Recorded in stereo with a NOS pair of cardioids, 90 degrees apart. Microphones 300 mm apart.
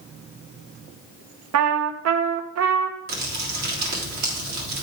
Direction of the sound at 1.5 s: 60° right.